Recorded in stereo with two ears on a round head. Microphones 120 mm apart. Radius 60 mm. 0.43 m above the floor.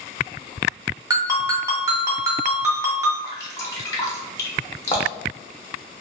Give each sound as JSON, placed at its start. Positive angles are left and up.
{"t": 1.1, "sound": "a ringtone", "side_deg": -25, "distance_m": 0.6}
{"t": 3.2, "sound": "dripping", "side_deg": 25, "distance_m": 0.6}